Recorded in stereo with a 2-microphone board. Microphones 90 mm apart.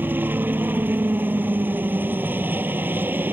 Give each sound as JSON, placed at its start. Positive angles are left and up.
{"t": 0.0, "sound": "a helicopter", "side_deg": -25}